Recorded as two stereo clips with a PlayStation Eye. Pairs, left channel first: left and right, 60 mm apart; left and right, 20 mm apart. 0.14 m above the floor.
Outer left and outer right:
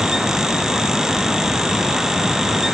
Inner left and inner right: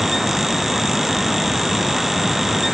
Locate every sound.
Only background noise.